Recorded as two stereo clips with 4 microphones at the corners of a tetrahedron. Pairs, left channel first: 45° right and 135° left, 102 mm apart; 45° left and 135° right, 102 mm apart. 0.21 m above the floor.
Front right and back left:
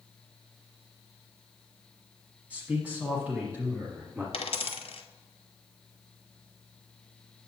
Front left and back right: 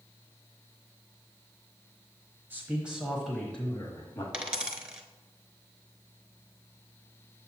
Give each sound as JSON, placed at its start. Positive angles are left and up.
{"t": 2.5, "sound": "a man speaking", "azimuth_deg": -170, "distance_m": 1.3}
{"t": 4.3, "sound": "a dropped coin", "azimuth_deg": -55, "distance_m": 0.9}